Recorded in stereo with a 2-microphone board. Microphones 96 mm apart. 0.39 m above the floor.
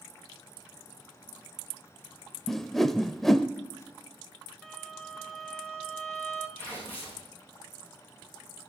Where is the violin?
5° left (ahead or behind), 0.9 m.